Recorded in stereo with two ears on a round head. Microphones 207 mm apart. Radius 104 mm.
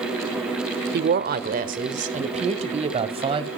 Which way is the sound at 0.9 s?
45° right (ahead or behind).